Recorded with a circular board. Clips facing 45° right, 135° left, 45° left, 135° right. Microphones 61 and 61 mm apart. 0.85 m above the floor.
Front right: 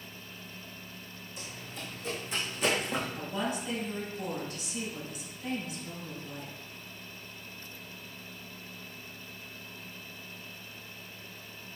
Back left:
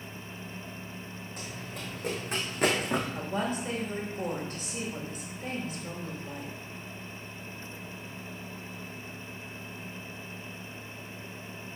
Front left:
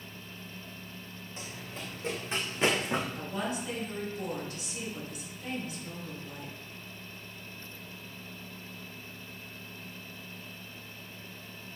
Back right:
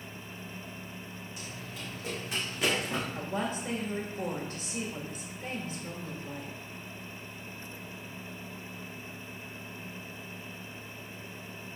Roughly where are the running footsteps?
Left.